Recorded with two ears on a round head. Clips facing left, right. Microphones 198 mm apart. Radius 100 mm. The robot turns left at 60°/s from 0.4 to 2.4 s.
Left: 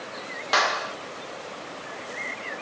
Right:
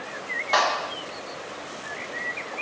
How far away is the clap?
About 0.8 m.